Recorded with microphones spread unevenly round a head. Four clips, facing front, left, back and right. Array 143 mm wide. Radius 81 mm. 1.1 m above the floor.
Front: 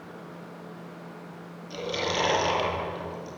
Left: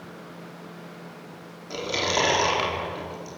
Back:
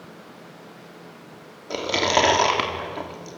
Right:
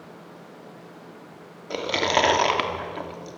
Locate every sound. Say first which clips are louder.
1.7 s chewing: right 4 dB, back 8 dB; 145° right, 2.5 m